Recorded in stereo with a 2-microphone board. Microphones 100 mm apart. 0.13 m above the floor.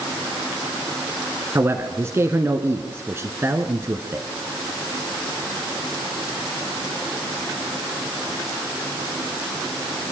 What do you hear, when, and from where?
1.6 s a man speaking: 25° right (ahead or behind), 1.3 m